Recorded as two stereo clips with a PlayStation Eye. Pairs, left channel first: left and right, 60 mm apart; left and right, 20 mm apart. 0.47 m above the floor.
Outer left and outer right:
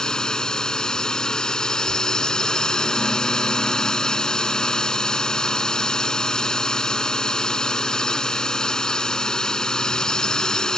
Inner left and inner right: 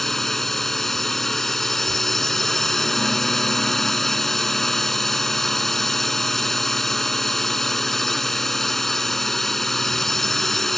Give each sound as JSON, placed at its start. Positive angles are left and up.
{"t": 0.0, "sound": "a drone", "side_deg": 10}